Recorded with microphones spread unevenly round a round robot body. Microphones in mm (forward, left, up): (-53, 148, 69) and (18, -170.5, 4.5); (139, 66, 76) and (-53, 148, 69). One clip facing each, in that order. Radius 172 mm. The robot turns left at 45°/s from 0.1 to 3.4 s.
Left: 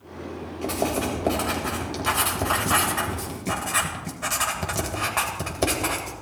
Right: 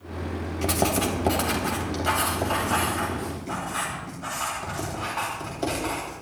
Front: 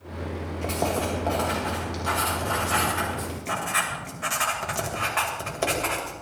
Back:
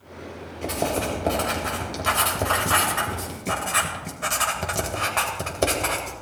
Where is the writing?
120° right, 2.5 m; by 6.1 s 115° left, 2.5 m.